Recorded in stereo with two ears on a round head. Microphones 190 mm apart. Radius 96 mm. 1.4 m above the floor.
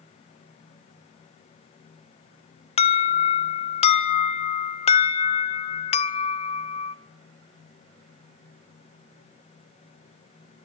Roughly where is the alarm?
Left.